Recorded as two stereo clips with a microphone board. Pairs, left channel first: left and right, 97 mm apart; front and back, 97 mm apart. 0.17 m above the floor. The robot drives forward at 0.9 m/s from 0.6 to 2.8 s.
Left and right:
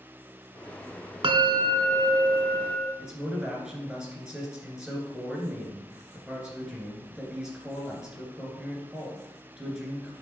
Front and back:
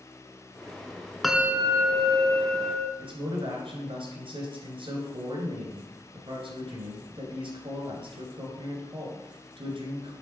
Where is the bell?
90° right, 0.6 m; by 2.9 s 160° right, 1.5 m.